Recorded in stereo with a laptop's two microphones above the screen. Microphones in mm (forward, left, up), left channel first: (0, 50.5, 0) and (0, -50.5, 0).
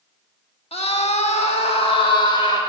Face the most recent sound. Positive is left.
turn(degrees=45)  # may be behind; listen again after turning